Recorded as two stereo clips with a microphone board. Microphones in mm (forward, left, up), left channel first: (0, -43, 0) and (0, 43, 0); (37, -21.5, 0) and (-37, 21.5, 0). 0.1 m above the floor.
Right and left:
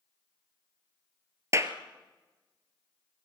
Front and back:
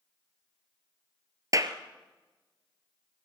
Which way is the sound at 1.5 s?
130° left.